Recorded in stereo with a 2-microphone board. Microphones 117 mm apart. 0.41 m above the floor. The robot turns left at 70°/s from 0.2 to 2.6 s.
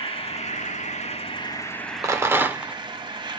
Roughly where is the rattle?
Right.